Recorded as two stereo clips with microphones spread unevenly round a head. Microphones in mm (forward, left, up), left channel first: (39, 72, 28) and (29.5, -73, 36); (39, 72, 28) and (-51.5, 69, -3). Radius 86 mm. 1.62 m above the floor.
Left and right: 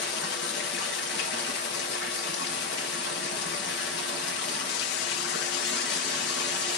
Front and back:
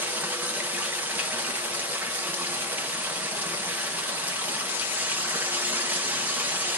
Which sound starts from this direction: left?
Running water, at 0.0 s.